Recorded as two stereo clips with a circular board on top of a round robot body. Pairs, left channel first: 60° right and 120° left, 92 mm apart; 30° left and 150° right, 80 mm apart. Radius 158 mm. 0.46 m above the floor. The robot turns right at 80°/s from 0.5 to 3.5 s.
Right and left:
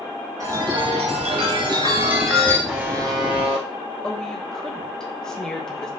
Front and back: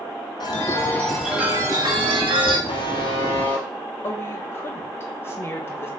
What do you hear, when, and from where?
0.4 s a chime: 65° left, 0.8 m; by 2.6 s 130° right, 0.8 m
2.7 s a buzzer: 35° left, 0.8 m; by 3.7 s 100° left, 0.8 m
4.0 s a woman speaking: 15° left, 1.3 m